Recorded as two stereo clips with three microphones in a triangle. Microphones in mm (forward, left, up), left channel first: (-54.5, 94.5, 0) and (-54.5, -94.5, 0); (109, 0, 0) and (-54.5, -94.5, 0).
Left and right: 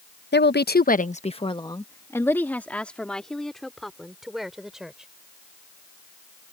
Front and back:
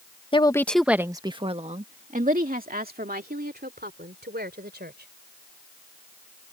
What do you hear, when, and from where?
0.3 s a woman speaking: 90° left; by 5.1 s 175° right